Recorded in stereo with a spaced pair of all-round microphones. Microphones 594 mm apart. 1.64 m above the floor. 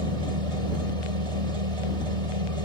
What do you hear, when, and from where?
0.0 s a machine running: 70° right (ahead or behind)